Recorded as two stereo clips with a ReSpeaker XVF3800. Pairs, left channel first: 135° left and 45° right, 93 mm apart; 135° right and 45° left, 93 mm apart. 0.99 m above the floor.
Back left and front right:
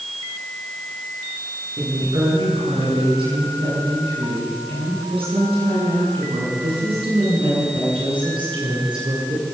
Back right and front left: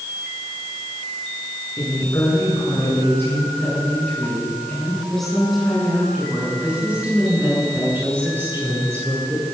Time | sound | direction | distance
1.8 | a woman speaking | 80° right | 10 m